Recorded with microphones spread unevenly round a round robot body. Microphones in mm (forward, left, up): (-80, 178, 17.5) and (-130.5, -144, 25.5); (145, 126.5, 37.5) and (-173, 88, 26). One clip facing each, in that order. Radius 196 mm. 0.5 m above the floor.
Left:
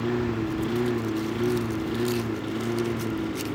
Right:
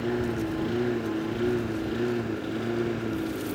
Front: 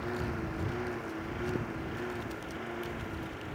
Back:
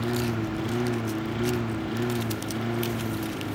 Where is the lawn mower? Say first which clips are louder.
Left 1 dB, back 8 dB; 155° left; by 3.5 s 165° left.